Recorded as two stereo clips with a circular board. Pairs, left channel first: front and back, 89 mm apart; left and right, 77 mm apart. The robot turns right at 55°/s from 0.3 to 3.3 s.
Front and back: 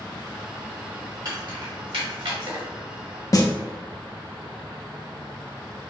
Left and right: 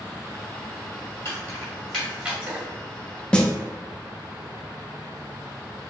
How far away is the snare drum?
About 0.6 m.